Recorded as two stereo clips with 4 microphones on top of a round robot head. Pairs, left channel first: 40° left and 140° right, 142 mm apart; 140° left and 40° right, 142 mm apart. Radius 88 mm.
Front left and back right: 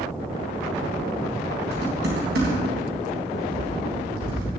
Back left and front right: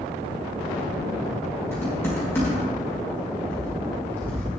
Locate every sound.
1.7 s typing on a keyboard: 145° right, 4.5 m